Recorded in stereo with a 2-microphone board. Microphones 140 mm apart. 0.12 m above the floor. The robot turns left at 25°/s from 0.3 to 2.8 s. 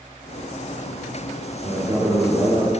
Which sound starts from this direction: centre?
A man speaking, at 1.6 s.